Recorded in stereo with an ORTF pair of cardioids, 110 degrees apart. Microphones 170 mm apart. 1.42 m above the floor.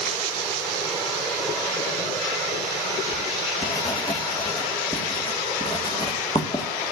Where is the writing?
25° left, 2 m.